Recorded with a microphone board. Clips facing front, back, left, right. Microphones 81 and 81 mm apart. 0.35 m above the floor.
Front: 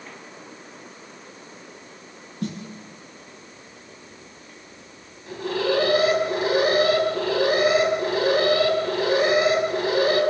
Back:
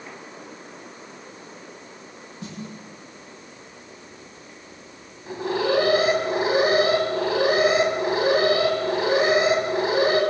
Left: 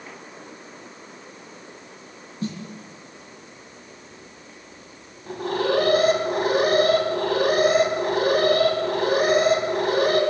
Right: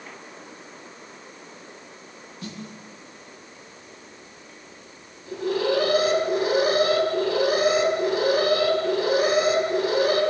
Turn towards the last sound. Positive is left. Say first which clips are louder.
# back 1 dB, even
turn(degrees=120)